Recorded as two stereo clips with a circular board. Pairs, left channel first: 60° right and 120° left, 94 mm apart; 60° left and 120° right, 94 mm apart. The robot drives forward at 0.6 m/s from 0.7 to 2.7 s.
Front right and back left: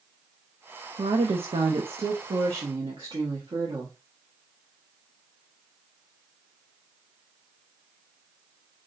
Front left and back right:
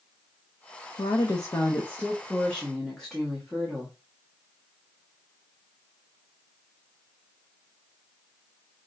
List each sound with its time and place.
1.0 s a woman speaking: 95° left, 0.8 m; by 4.0 s 145° left, 1.3 m